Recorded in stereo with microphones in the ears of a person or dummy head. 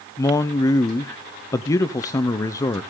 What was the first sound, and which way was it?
A man speaking, 20° left (ahead or behind).